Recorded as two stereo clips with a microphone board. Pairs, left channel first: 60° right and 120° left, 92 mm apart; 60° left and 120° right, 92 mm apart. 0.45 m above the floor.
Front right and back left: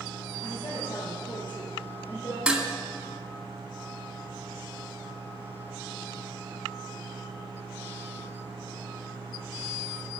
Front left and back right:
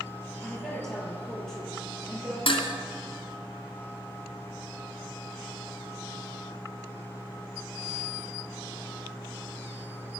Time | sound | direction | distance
0.4 | a woman speaking | 25° right | 8 m
2.5 | dishes clattering | 40° left | 2.5 m